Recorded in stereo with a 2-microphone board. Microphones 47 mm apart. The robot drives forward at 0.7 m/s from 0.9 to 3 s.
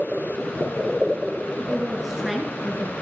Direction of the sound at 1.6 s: 5° right (ahead or behind).